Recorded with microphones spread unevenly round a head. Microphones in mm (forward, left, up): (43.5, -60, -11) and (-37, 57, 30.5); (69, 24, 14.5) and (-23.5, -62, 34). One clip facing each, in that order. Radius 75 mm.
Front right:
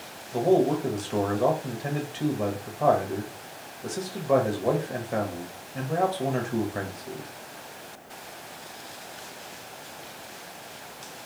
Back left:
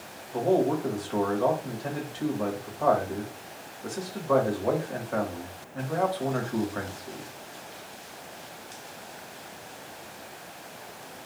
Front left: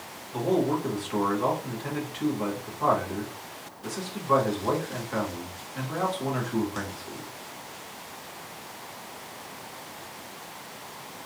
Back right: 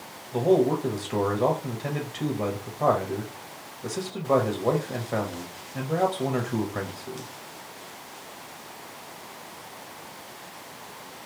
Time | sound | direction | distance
0.3 | a man speaking | 95° right | 1.4 m